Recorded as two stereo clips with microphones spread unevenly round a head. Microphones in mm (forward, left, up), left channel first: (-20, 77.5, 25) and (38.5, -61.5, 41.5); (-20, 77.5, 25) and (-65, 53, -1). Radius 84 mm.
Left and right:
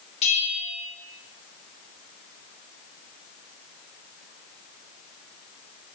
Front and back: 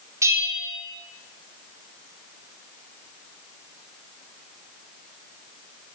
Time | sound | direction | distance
0.2 | a bell | 165° left | 1.7 m